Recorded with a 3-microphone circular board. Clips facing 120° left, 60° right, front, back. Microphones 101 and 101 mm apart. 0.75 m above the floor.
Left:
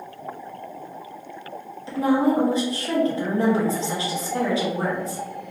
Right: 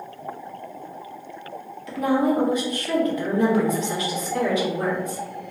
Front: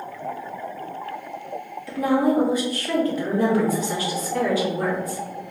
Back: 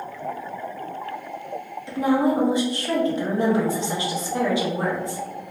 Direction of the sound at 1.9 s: 140° left.